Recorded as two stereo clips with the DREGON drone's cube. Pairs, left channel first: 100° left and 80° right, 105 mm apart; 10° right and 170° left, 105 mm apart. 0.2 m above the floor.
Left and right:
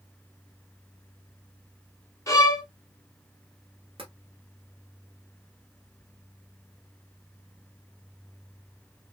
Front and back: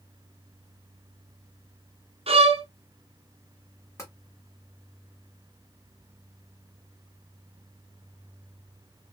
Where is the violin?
155° left, 1.0 m.